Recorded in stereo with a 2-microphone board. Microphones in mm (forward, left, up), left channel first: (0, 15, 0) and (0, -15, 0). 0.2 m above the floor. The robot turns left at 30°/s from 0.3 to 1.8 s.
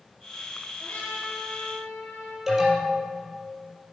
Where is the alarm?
5° right (ahead or behind), 4.5 m.